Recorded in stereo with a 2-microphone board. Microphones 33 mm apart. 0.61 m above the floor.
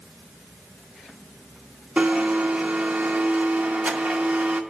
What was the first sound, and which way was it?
A blender, 45° right (ahead or behind).